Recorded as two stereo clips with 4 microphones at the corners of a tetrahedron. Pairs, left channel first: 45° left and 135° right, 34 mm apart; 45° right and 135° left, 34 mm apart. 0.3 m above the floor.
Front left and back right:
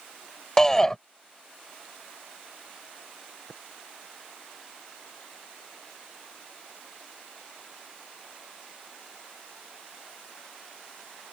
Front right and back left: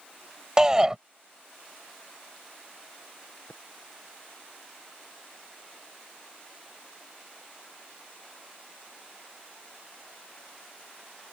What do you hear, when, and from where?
0.6 s a shout: 95° left
3.5 s tapping: 25° right